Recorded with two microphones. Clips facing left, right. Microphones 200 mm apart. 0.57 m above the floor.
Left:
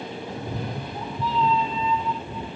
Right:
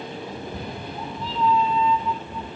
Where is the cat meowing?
80° left, 2 m.